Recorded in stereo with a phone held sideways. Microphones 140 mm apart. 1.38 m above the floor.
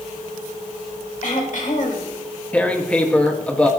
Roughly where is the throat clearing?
Left.